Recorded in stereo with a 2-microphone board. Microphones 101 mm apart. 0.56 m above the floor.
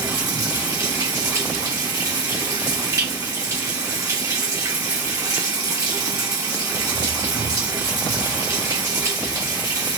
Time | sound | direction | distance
0.0 | running water | 35° right (ahead or behind) | 1.0 m